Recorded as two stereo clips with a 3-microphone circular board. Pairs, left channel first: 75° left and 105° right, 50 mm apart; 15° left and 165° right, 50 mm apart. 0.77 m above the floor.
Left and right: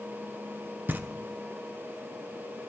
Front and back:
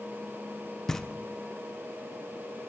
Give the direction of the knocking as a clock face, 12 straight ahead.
2 o'clock.